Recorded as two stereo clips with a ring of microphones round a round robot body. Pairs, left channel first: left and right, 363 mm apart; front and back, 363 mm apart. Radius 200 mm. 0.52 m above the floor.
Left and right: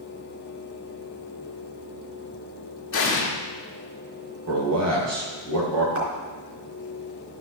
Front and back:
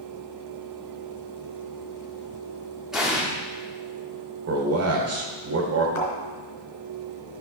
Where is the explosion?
90° left, 1.3 m.